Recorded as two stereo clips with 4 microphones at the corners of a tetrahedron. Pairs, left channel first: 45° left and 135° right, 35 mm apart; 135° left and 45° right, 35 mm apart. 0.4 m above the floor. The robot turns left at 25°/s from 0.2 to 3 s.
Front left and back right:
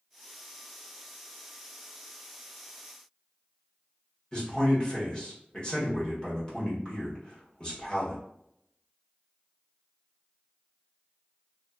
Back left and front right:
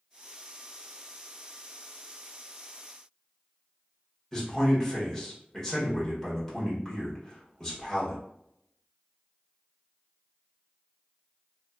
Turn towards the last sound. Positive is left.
turn(degrees=65)